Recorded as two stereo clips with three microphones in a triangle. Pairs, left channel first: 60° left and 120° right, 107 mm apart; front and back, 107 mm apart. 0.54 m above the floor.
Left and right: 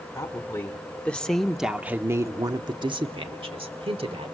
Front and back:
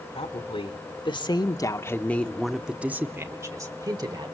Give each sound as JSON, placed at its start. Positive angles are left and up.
{"t": 0.1, "sound": "a woman speaking", "azimuth_deg": 0, "distance_m": 1.5}